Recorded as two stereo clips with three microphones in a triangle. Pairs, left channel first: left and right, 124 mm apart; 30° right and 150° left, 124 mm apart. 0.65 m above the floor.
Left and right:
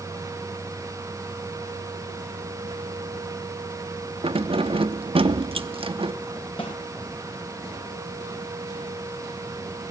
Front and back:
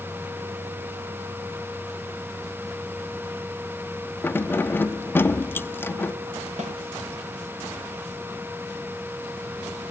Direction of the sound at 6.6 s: 130° left.